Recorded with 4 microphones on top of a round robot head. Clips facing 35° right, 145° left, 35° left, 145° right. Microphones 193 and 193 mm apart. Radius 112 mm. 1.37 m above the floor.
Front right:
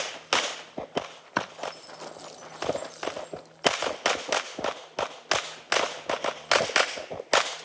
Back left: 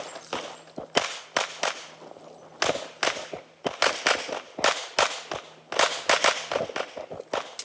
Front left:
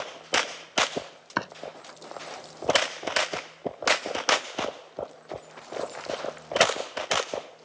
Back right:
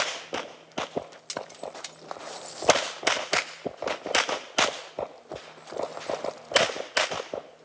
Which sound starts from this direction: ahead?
Chopping, at 1.4 s.